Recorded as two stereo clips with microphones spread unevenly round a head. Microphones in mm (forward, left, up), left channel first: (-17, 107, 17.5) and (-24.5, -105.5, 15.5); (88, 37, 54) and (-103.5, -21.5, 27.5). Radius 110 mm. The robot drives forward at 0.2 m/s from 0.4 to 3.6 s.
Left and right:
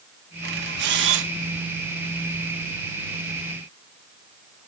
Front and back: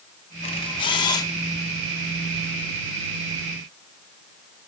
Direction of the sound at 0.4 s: 45° right.